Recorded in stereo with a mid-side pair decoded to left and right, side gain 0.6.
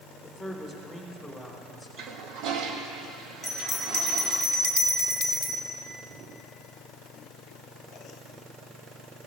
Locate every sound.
0.2 s a man speaking: 10° right, 3.5 m; by 1.9 s 5° right, 4.5 m
2.0 s a toilet flushing: 70° right, 1.2 m
3.4 s a bell: 5° right, 2 m